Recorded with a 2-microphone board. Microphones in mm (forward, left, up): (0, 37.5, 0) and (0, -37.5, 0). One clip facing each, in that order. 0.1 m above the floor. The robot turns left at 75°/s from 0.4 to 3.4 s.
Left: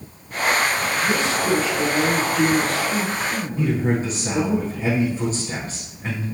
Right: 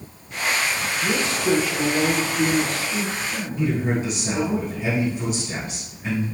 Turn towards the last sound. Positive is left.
turn(degrees=35)  # may be behind; listen again after turning